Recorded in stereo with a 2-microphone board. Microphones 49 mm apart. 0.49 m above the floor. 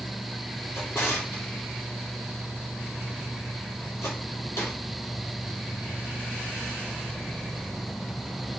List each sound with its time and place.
0.7 s a drawer: 75° left (ahead or behind), 3.5 m